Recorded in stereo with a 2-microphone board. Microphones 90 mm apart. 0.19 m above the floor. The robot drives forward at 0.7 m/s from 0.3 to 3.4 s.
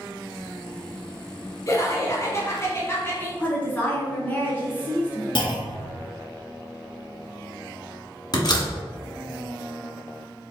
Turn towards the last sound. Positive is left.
turn(degrees=50)  # may be behind; listen again after turning